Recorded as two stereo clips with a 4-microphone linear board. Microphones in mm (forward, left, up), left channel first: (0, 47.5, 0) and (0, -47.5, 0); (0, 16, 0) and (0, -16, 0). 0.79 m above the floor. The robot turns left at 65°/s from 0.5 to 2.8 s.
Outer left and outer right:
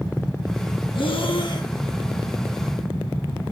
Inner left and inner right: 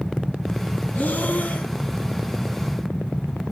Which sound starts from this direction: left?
Breathing, at 0.9 s.